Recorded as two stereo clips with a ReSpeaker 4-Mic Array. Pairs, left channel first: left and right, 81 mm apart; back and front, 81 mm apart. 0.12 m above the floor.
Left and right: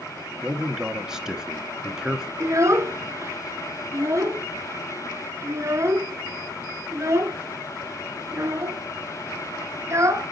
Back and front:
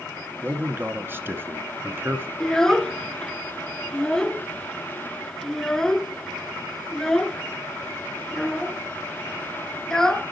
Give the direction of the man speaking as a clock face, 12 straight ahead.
1 o'clock.